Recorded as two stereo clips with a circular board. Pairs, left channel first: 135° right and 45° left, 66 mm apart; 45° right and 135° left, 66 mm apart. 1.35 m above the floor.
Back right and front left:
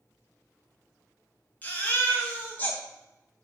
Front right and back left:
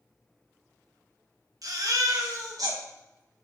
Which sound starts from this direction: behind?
A baby crying, at 1.6 s.